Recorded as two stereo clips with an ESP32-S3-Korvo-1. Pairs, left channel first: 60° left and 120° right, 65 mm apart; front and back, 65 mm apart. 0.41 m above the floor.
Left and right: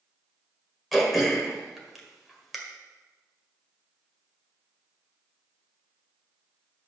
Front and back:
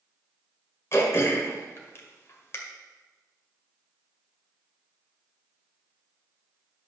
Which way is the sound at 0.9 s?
30° right.